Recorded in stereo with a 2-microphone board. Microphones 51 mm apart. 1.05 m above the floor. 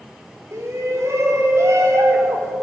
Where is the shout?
70° right (ahead or behind), 4.5 m.